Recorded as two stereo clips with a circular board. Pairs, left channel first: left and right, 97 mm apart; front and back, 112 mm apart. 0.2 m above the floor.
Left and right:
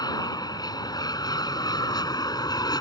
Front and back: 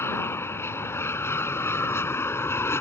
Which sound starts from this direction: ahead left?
An aircraft, at 0.0 s.